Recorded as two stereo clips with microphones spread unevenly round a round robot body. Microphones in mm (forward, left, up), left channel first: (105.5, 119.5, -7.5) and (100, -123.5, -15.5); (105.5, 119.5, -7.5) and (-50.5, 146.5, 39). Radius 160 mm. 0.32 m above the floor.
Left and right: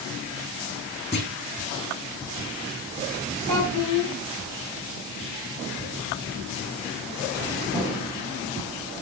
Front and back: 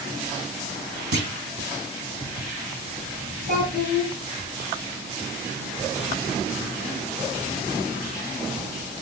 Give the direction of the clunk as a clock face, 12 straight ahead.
7 o'clock.